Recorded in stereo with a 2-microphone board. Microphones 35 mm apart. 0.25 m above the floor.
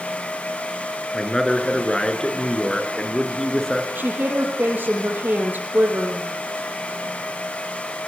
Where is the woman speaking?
80° right, 6 m.